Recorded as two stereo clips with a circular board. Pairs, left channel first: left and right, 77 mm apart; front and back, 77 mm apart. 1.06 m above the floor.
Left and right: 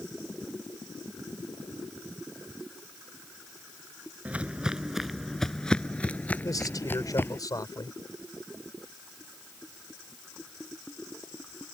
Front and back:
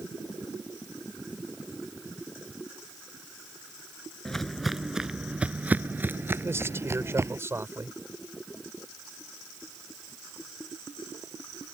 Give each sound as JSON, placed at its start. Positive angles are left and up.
{"t": 4.2, "sound": "footsteps", "azimuth_deg": -65}
{"t": 6.4, "sound": "a man speaking", "azimuth_deg": 125}